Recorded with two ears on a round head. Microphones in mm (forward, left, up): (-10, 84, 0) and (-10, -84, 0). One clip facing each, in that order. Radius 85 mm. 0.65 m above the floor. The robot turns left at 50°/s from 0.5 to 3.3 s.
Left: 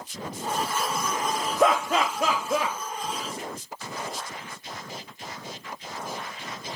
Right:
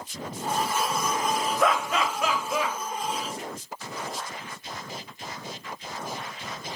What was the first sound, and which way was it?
Laughter, 25° left (ahead or behind).